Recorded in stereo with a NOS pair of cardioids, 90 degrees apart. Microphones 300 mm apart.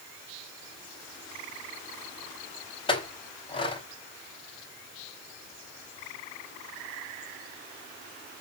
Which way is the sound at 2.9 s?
15° left.